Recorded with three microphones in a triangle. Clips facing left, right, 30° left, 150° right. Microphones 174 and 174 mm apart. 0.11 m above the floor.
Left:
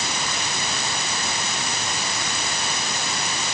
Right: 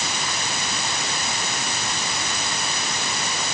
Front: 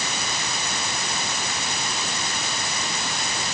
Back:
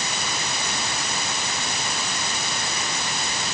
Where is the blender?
I don't hear a blender.